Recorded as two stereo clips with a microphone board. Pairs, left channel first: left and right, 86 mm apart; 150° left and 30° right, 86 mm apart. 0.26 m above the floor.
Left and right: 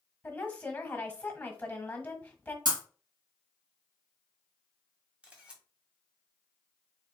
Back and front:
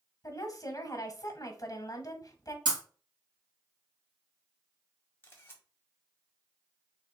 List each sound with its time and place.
0.2 s a woman speaking: 160° left, 1.4 m
2.6 s breaking glass: 55° right, 2.5 m
5.2 s a camera shutter: 160° right, 1.4 m